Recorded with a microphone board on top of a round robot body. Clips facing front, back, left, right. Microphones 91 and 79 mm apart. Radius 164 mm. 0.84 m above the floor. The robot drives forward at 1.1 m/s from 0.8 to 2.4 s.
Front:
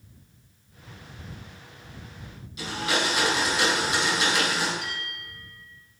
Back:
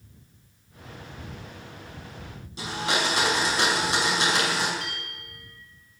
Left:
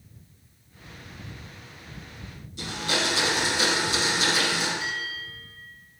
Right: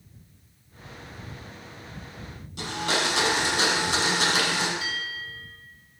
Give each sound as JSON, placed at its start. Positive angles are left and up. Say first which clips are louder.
{"t": 2.6, "sound": "a blender", "louder": "even, right 2 dB", "azimuth_deg": -120, "distance_m": 5.5}
{"t": 4.8, "sound": "a bell", "louder": "front 2 dB, even", "azimuth_deg": -165, "distance_m": 7.5}